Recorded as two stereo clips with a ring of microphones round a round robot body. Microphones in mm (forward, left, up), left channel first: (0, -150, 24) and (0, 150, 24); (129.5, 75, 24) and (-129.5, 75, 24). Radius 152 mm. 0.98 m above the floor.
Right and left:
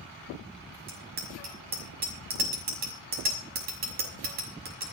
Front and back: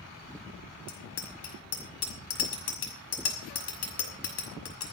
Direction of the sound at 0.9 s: 30° left.